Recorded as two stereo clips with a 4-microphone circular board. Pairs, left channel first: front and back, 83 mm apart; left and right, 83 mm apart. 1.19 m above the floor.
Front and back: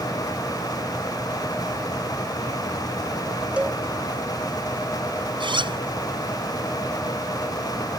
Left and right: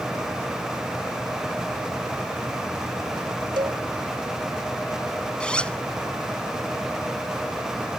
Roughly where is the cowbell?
Right.